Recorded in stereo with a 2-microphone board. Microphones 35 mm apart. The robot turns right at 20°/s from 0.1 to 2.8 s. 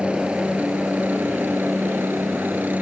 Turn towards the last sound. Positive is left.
turn(degrees=-55)  # may be behind; listen again after turning